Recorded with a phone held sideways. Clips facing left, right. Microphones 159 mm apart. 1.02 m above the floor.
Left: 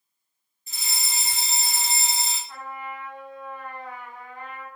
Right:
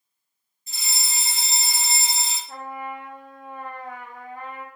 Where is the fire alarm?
35° right (ahead or behind), 1.4 m.